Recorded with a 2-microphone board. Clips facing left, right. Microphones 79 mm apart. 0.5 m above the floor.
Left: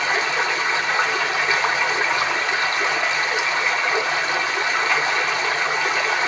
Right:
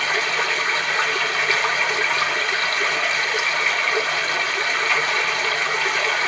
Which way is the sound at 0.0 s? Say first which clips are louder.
Left 1 dB; 20° left (ahead or behind).